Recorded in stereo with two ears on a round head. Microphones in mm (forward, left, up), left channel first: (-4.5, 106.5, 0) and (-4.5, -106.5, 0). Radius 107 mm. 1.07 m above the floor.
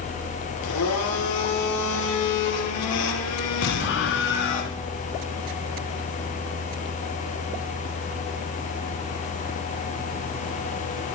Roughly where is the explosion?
Left.